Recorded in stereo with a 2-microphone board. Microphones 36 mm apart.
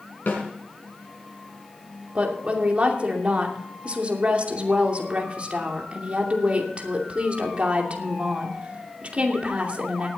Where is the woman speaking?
35° right (ahead or behind), 2.5 m.